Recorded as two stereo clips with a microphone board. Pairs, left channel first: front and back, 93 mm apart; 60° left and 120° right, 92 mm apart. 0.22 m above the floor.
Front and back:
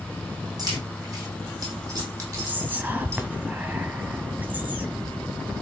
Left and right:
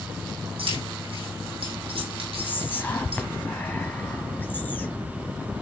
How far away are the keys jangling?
About 6 m.